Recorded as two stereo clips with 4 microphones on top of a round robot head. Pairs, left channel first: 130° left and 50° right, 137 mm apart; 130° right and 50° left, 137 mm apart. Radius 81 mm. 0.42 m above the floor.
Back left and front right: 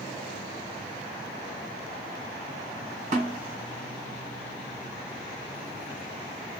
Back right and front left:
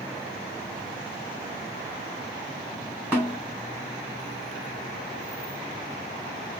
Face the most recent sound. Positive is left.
turn(degrees=-30)